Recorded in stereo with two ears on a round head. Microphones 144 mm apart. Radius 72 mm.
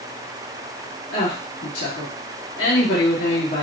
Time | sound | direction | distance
1.1 | a woman speaking | 70° left (ahead or behind) | 1.8 m